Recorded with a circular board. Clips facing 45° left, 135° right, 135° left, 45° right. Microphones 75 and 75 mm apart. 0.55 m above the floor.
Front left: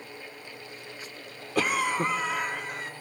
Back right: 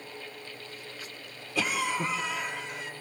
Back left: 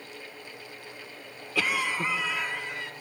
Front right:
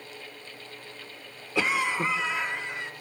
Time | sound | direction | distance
1.6 | a cough | 20° left | 1.3 m